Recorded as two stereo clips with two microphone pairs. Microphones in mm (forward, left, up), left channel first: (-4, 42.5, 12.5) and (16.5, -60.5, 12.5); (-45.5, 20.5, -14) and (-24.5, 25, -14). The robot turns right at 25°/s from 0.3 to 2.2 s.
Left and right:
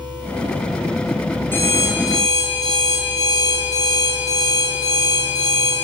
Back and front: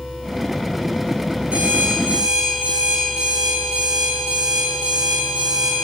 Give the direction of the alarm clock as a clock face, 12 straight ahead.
11 o'clock.